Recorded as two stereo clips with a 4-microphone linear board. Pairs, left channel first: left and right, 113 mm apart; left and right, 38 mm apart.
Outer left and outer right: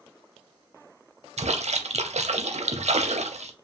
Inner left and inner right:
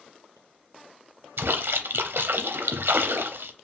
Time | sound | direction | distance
1.4 | a splash | 80° right | 0.6 m